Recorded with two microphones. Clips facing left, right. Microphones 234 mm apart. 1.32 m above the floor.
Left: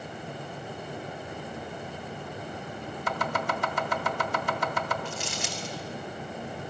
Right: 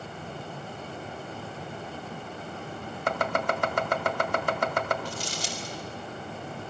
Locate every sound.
3.1 s chopping: 55° right (ahead or behind), 1.9 m
5.0 s crumpling: 35° right (ahead or behind), 5.5 m